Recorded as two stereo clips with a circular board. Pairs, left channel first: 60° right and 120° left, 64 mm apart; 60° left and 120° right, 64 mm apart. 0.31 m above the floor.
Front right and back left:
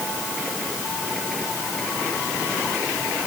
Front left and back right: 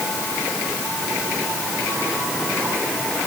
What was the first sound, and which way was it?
Only background noise.